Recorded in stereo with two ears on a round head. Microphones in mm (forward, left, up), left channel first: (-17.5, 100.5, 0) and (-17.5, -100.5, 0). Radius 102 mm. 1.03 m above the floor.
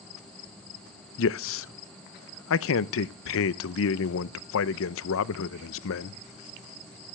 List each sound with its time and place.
1.2 s a man speaking: 60° left (ahead or behind), 0.6 m